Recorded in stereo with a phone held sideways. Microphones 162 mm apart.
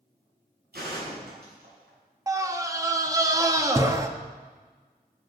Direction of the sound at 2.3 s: 20° right (ahead or behind).